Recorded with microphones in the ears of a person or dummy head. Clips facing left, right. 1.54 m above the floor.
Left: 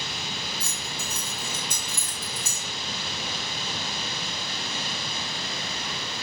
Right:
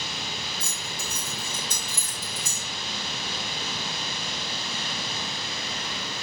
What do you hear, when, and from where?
0.6 s keys jangling: 20° right (ahead or behind), 1.4 m; by 2.6 s 60° right (ahead or behind), 0.8 m